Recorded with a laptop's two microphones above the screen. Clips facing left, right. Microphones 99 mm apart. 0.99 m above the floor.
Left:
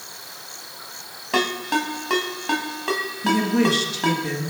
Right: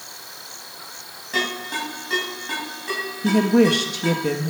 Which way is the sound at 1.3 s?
75° left (ahead or behind).